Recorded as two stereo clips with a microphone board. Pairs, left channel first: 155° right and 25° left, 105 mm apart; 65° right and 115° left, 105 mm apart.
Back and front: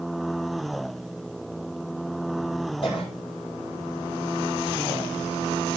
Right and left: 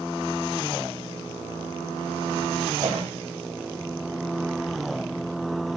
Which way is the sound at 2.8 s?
170° left.